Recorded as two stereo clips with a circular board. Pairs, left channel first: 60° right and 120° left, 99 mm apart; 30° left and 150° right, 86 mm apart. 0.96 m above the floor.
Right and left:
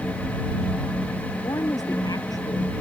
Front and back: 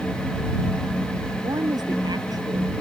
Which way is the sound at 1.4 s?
110° right.